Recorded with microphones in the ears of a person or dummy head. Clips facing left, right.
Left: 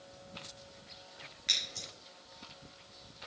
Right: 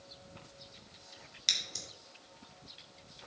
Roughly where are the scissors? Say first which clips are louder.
Even; right.